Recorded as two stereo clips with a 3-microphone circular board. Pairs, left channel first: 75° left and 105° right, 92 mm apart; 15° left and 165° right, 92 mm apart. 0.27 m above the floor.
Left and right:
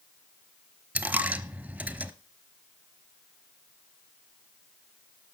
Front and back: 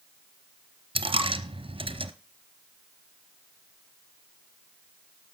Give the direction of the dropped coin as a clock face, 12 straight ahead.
6 o'clock.